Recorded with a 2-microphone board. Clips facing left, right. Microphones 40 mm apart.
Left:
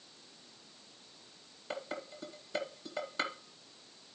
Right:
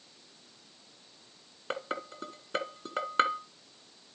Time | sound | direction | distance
1.7 | dishes clattering | 50° right (ahead or behind) | 1.7 m